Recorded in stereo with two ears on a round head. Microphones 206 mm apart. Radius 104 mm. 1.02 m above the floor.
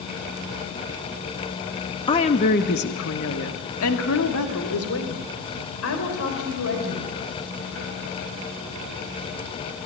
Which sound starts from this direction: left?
A woman speaking, at 2.1 s.